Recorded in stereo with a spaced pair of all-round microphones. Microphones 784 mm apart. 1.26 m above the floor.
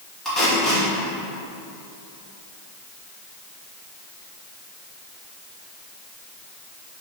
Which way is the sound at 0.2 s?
Centre (ahead or behind).